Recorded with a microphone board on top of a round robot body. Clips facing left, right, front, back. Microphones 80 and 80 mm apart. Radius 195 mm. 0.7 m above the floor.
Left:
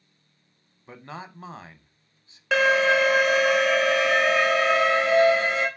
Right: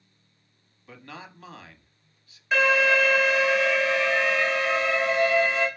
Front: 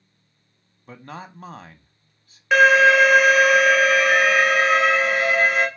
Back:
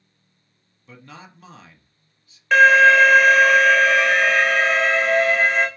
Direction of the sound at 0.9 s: 35° left.